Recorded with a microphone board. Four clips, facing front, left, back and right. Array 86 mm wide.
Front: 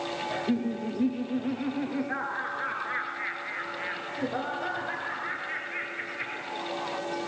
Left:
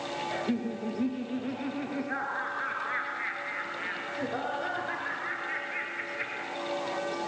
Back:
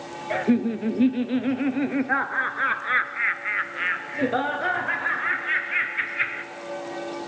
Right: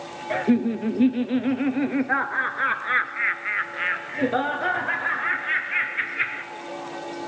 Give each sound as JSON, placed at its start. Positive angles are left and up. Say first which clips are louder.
{"t": 0.3, "sound": "laughter", "louder": "right 12 dB, back 8 dB", "azimuth_deg": -135, "distance_m": 2.0}